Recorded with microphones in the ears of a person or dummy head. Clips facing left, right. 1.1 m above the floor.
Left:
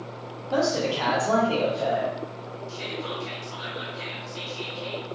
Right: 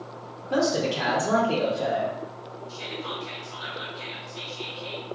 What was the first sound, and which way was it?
A man speaking, 25° right (ahead or behind).